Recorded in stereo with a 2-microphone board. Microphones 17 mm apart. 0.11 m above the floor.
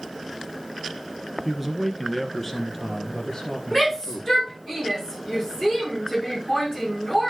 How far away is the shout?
About 8 m.